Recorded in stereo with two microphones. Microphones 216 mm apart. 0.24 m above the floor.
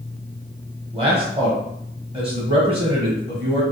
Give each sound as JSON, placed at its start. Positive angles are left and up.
{"t": 0.9, "sound": "a man speaking", "side_deg": -25, "distance_m": 1.0}